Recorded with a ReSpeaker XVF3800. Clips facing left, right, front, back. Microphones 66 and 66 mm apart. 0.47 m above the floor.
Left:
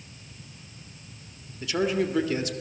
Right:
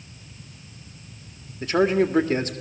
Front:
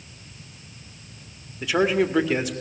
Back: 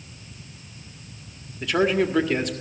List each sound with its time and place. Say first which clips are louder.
1.6 s a man speaking: right 6 dB, even; 85° right, 1.6 m